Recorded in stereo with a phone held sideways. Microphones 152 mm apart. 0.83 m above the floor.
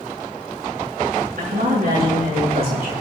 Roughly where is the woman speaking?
Right.